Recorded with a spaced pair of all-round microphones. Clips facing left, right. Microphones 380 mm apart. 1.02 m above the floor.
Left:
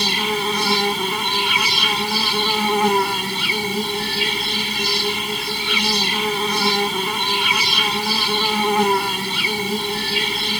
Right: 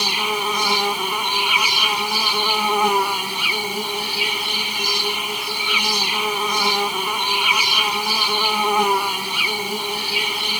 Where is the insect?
30° left (ahead or behind).